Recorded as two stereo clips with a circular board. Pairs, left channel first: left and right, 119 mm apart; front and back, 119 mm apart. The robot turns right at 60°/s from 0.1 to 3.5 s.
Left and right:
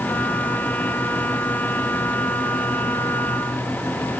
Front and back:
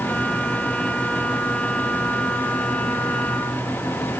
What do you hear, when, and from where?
Only background noise.